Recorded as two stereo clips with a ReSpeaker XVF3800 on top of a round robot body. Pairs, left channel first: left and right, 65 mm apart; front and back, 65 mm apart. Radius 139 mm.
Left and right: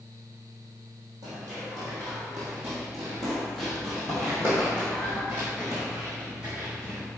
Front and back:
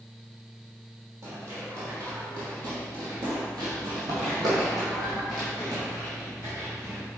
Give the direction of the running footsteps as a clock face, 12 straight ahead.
4 o'clock.